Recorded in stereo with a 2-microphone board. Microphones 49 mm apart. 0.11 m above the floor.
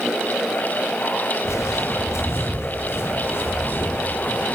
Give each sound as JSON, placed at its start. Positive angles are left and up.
{"t": 1.4, "sound": "footsteps", "side_deg": 80, "distance_m": 4.5}